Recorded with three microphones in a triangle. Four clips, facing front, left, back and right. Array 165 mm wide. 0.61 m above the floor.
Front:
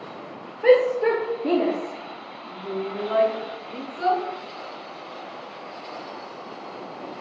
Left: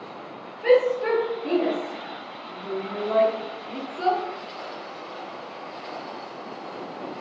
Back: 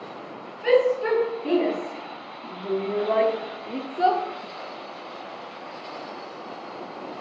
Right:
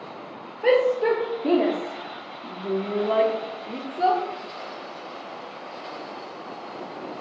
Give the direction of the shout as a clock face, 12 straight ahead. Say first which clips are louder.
Even, front 3 dB; 1 o'clock.